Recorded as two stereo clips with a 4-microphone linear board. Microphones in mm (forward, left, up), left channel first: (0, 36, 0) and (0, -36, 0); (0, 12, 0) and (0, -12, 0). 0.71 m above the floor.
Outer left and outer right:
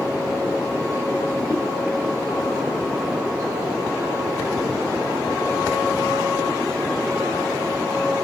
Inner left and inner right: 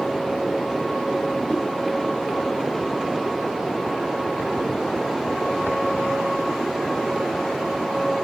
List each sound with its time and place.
1.5 s a whoosh: 65° left (ahead or behind), 0.7 m